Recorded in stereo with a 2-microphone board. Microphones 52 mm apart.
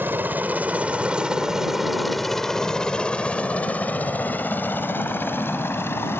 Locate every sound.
0.0 s a helicopter: 40° right (ahead or behind); by 6.2 s 45° left (ahead or behind)